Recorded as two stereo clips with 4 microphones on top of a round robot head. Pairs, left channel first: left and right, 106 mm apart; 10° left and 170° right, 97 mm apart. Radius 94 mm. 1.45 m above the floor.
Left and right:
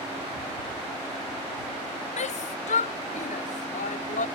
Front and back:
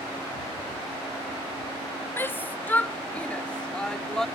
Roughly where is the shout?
Left.